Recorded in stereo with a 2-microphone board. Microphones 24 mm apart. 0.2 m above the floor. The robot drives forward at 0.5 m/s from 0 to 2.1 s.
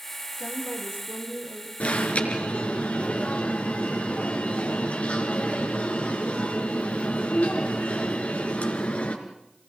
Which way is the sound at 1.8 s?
55° left (ahead or behind).